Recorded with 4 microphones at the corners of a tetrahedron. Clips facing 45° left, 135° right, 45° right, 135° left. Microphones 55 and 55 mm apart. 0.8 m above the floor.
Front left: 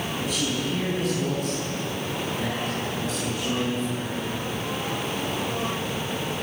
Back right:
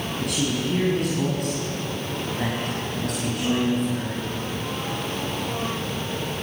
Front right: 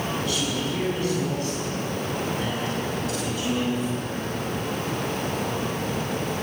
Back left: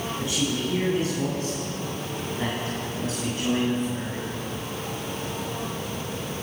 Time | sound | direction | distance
0.2 | a man speaking | 155° right | 6.5 m